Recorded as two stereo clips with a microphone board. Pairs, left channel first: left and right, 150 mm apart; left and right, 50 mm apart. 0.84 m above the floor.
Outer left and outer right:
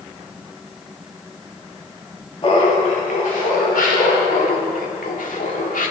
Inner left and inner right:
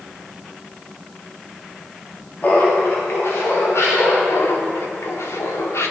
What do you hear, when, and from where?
2.4 s laughter: 40° left (ahead or behind), 1.9 m; by 4.2 s 75° left (ahead or behind), 4 m
4.3 s laughter: 70° left (ahead or behind), 2.5 m